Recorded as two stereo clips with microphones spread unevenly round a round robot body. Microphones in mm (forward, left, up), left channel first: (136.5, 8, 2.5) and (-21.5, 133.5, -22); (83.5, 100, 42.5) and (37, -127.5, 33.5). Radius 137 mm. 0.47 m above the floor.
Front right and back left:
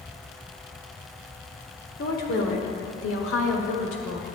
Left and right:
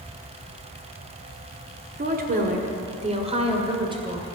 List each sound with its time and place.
2.0 s a woman speaking: 80° right, 1.5 m; by 4.4 s 30° right, 2.5 m